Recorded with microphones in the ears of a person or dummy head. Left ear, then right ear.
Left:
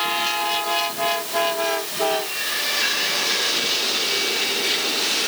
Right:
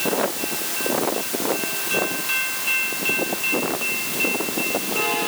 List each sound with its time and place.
Only background noise.